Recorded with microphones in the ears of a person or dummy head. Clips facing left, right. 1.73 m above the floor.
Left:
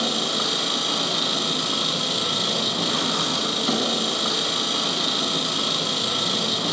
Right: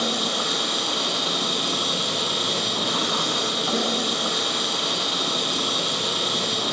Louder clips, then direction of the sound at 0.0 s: Even; 35° left (ahead or behind).